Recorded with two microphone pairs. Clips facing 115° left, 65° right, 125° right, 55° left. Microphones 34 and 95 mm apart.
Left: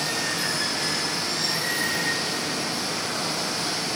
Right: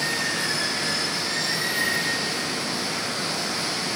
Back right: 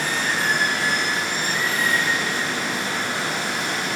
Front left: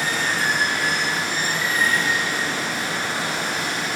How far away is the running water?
About 2 m.